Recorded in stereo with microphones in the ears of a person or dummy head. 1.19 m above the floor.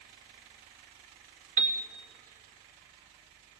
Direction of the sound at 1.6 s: 45° right (ahead or behind).